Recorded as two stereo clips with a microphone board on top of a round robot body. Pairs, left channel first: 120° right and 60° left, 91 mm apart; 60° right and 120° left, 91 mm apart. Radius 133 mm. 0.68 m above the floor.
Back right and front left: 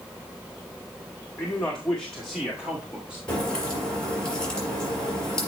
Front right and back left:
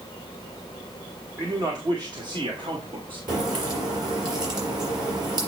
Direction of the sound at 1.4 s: 170° left.